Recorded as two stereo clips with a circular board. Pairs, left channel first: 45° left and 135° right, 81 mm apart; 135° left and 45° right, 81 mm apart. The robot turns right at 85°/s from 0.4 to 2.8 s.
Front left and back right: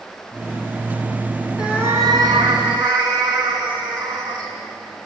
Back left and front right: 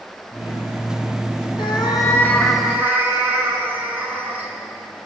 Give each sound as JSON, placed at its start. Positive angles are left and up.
{"t": 1.6, "sound": "a cat meowing", "azimuth_deg": 145, "distance_m": 4.5}